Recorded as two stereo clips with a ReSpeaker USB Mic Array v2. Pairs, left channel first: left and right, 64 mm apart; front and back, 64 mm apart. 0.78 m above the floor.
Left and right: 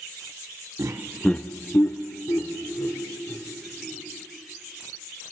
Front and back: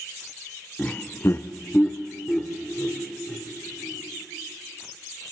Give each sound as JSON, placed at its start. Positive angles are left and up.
{"t": 0.8, "sound": "laughter", "azimuth_deg": -75, "distance_m": 0.8}